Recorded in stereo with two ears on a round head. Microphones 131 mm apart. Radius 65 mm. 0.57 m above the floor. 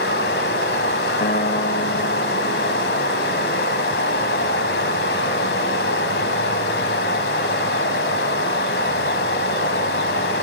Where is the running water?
85° left, 2.5 m.